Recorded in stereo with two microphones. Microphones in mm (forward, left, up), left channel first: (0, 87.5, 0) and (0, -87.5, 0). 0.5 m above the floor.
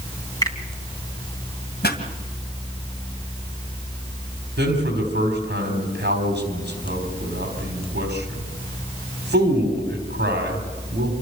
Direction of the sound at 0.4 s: 20° left (ahead or behind).